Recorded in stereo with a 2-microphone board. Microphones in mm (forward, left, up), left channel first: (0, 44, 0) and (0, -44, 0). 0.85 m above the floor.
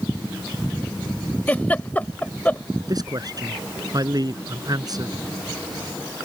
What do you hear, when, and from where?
1.5 s a giggle: 20° left (ahead or behind)
2.9 s a man speaking: 45° right (ahead or behind)